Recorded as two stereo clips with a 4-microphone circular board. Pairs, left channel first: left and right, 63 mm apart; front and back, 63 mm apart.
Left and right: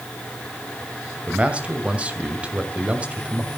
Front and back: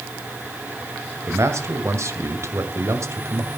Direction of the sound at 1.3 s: 155° right.